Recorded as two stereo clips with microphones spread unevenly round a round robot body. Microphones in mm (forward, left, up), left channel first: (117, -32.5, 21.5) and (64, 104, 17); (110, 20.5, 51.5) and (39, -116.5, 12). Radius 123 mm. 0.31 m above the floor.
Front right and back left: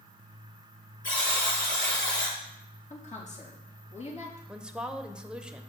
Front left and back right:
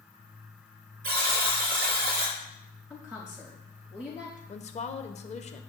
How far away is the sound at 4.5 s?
About 0.9 m.